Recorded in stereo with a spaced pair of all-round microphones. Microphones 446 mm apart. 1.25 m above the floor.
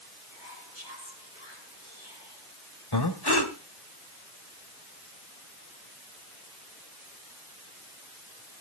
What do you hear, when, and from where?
0.3 s whispering: 15° left (ahead or behind), 7 m
2.9 s breathing: 60° left (ahead or behind), 1.7 m